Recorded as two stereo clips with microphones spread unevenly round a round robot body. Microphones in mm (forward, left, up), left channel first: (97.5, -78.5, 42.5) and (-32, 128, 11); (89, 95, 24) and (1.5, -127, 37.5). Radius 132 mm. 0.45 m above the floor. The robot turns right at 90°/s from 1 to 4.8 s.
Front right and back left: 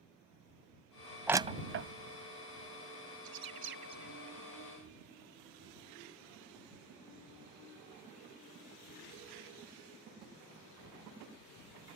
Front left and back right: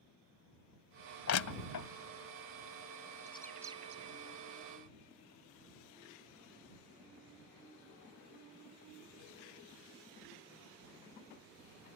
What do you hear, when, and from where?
1.3 s crushing: 35° left; by 1.9 s 90° left
3.2 s a bird: 135° left; by 4.2 s 145° right